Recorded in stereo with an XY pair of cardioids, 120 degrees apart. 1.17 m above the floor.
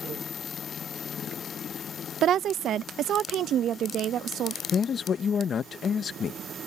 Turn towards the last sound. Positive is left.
turn(degrees=45)